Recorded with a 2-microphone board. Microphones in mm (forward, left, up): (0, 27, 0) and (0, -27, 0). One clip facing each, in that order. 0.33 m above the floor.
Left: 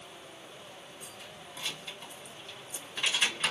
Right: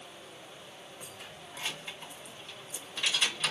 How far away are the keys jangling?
About 1.3 m.